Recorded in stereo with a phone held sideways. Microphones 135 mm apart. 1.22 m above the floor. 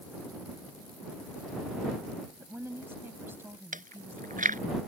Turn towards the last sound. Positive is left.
turn(degrees=-75)  # may be behind; listen again after turning